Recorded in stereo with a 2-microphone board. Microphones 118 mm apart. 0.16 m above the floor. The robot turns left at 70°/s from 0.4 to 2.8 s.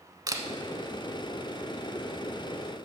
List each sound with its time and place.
0.3 s a camera shutter: 30° right (ahead or behind), 0.8 m